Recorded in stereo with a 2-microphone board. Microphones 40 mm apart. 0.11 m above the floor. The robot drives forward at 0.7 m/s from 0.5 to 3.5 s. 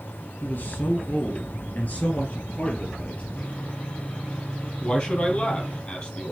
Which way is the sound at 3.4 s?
30° left (ahead or behind).